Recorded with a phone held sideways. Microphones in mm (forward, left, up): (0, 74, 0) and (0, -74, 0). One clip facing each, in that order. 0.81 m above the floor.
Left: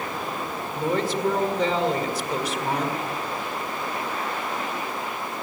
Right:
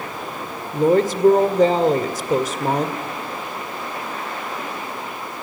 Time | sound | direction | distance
0.7 | a woman speaking | 45° right (ahead or behind) | 2 m